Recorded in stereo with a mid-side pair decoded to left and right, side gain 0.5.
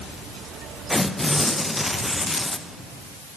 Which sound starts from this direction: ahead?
Tearing paper, at 0.9 s.